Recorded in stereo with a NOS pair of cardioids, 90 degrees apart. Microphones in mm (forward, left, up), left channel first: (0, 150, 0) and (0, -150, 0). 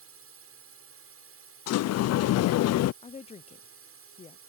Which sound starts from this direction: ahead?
A woman speaking, at 3.0 s.